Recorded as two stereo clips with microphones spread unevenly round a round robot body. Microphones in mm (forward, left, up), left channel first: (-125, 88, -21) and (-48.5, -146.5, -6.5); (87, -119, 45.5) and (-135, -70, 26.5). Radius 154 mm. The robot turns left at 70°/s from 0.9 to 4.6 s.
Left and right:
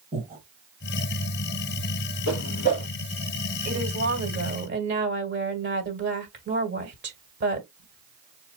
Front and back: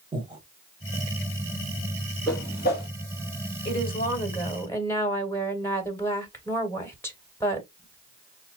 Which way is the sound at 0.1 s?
125° right.